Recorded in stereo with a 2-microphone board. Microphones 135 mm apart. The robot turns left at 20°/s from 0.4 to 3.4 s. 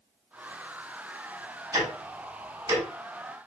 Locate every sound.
1.7 s ticking: 20° right (ahead or behind), 1.3 m